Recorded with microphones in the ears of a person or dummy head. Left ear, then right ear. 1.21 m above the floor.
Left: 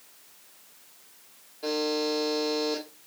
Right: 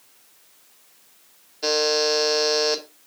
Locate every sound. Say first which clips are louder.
1.6 s a buzzer: right 7 dB; 60° right (ahead or behind), 2 m